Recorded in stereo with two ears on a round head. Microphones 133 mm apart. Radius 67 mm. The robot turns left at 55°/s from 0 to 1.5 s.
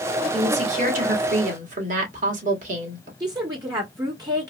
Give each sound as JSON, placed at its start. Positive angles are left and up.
{"t": 0.3, "sound": "a woman speaking", "azimuth_deg": -40, "distance_m": 1.7}
{"t": 3.2, "sound": "a woman speaking", "side_deg": -30, "distance_m": 1.3}